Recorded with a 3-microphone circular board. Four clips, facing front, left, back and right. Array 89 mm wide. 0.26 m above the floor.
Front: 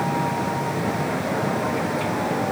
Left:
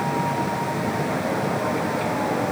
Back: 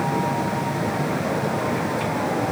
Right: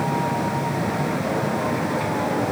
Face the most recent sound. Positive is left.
No sound to turn to.